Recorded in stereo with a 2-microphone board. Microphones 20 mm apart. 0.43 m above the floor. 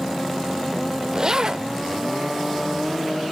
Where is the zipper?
40° right (ahead or behind), 0.5 m.